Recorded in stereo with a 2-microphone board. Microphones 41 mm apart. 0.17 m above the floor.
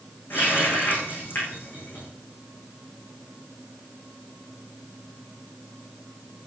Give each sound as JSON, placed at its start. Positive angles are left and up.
{"t": 0.3, "sound": "a running tap", "side_deg": 50, "distance_m": 6.5}